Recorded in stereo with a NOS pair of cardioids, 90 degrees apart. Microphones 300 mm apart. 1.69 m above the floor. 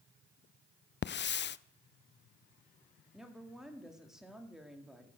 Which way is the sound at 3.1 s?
Straight ahead.